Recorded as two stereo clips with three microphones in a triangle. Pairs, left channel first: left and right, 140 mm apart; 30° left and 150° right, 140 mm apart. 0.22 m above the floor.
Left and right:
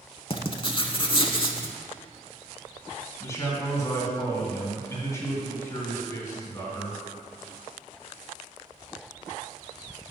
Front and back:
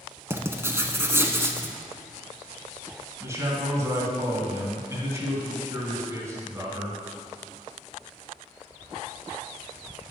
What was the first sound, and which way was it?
Writing, 140° left.